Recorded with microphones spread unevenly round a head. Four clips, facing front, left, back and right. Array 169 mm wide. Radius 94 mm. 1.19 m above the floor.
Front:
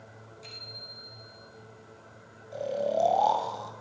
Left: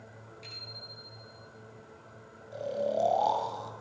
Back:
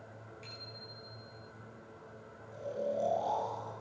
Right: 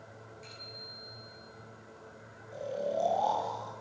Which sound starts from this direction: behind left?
A bicycle bell, at 0.4 s.